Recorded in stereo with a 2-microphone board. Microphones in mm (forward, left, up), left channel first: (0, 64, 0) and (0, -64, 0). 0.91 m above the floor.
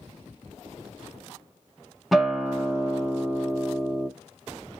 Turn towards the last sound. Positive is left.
turn(degrees=0)  # may be behind; listen again after turning